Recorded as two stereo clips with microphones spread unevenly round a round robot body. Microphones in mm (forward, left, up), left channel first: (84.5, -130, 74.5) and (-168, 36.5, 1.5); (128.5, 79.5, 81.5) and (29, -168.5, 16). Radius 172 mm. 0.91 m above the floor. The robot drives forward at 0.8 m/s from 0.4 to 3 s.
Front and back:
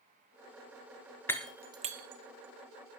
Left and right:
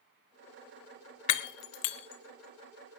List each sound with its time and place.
1.3 s breaking glass: 50° left, 1.1 m; by 3.0 s 130° left, 1.1 m